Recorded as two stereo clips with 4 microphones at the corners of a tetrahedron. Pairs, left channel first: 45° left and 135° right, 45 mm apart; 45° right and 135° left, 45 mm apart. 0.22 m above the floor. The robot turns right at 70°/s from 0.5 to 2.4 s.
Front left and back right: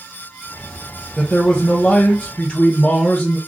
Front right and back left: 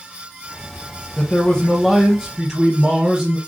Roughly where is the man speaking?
Ahead.